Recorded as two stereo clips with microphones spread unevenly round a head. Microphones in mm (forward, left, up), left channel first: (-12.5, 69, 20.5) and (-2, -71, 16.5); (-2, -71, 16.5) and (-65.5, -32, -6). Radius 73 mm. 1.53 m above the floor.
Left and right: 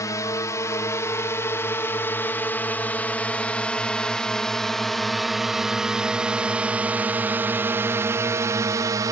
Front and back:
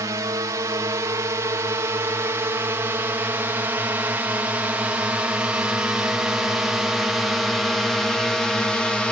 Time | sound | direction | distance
0.0 | a drone | 155° left | ?